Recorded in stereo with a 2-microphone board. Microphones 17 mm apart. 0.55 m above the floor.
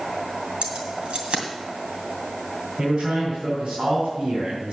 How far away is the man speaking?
About 4 m.